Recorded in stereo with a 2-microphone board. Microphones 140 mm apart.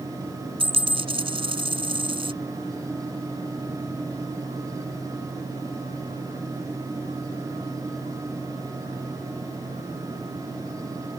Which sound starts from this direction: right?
A dropped coin, at 0.6 s.